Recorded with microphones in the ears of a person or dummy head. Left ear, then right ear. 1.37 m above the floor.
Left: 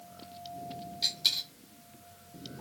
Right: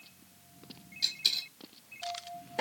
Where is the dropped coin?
5° right (ahead or behind), 1.6 m.